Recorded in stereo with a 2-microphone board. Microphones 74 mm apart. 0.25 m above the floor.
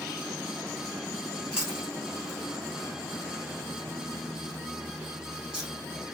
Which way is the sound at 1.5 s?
10° right (ahead or behind).